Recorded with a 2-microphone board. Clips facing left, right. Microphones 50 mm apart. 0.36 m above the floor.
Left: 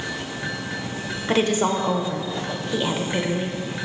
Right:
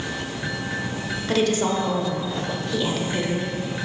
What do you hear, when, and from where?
1.3 s a woman speaking: 25° left (ahead or behind), 0.8 m